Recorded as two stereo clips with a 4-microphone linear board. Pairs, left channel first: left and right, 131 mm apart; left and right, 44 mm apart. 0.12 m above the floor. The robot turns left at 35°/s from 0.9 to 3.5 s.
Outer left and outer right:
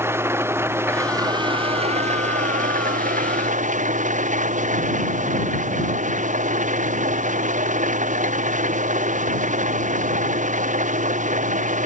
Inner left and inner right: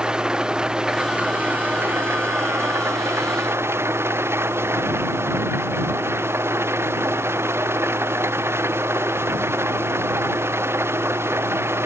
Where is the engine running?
20° right; by 11.9 s 110° right.